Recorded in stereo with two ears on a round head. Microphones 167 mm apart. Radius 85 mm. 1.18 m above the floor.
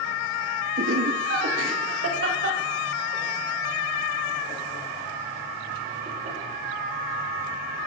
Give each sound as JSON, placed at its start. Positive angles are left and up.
{"t": 0.8, "sound": "laughter", "side_deg": -75, "distance_m": 2.5}